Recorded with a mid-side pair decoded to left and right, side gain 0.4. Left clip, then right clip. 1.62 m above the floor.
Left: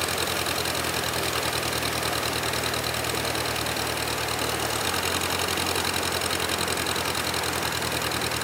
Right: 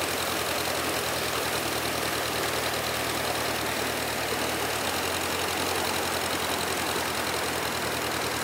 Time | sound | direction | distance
0.0 | an engine running | 40° left | ?